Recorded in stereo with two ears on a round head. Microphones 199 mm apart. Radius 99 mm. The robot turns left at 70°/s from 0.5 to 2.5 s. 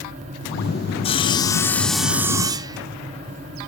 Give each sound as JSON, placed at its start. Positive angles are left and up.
{"t": 1.0, "sound": "sawing", "side_deg": 25, "distance_m": 0.5}